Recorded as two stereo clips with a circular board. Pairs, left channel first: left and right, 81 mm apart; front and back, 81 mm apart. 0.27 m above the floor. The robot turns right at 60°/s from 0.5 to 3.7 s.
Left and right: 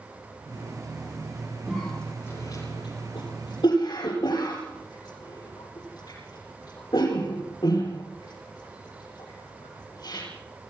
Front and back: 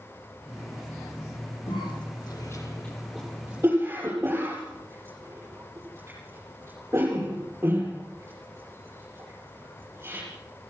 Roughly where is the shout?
I don't hear a shout.